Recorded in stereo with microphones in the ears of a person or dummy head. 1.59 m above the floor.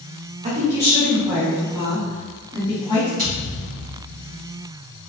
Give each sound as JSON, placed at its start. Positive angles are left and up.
{"t": 0.4, "sound": "a woman speaking", "side_deg": -35, "distance_m": 1.4}
{"t": 3.2, "sound": "a thud", "side_deg": -40, "distance_m": 1.8}